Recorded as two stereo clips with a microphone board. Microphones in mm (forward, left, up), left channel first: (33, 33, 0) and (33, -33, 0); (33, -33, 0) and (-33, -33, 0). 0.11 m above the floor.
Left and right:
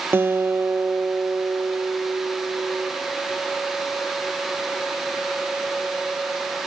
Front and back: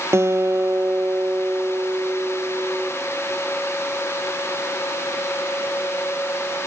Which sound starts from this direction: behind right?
A guitar, at 0.1 s.